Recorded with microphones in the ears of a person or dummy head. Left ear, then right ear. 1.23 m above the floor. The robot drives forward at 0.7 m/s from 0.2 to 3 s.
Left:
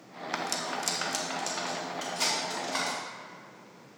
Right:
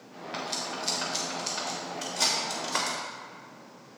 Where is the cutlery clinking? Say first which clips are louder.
Left 1 dB; 45° left (ahead or behind), 0.8 m; by 3.0 s 15° left (ahead or behind), 2.5 m.